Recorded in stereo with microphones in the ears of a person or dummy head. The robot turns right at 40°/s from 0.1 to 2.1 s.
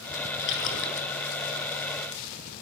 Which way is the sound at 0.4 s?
55° left (ahead or behind).